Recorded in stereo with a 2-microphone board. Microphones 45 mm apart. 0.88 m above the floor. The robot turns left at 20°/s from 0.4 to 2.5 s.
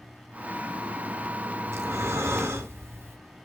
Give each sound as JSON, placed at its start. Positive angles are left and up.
{"t": 1.7, "sound": "breathing", "side_deg": -80, "distance_m": 2.0}